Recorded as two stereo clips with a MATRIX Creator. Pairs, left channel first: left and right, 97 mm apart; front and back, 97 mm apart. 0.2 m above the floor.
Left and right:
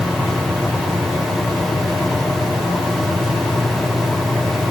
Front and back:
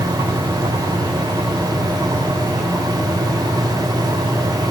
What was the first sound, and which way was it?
Only background noise.